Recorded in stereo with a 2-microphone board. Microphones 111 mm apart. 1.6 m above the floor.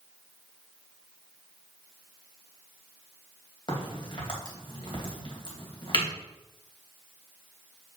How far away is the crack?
About 2.5 m.